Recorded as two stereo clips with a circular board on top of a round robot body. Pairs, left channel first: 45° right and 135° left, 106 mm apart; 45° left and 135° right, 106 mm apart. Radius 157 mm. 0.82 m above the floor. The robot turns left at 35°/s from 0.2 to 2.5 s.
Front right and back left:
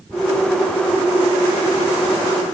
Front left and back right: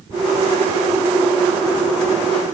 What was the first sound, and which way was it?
Only background noise.